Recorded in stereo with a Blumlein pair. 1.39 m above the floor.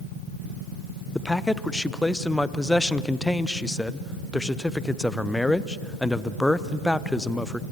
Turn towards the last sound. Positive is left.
turn(degrees=5)